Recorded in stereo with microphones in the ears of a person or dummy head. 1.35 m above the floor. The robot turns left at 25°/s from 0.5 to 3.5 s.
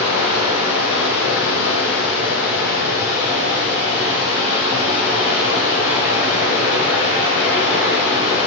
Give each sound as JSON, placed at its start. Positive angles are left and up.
{"t": 0.0, "sound": "running water", "azimuth_deg": 115, "distance_m": 3.0}